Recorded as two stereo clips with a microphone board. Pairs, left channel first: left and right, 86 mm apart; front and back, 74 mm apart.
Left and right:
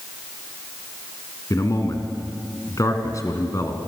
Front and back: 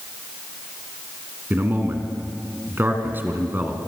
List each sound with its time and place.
1.5 s a man speaking: 125° left, 2.5 m